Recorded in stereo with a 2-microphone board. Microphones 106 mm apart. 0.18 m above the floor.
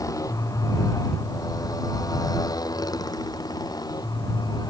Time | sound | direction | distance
0.0 | a motorcycle | 30° left (ahead or behind) | ?